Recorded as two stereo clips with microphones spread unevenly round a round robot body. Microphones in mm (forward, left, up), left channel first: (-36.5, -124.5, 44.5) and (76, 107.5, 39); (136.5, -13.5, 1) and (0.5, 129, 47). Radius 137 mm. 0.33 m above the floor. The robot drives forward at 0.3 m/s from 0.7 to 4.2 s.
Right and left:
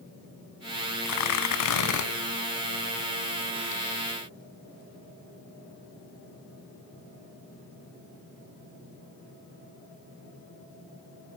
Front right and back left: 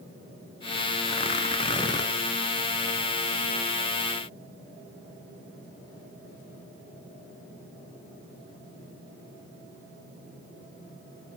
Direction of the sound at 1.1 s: 105° right.